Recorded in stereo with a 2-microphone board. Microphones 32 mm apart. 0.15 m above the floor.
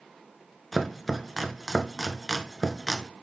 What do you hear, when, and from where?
0.7 s chopping: centre (ahead or behind), 0.6 m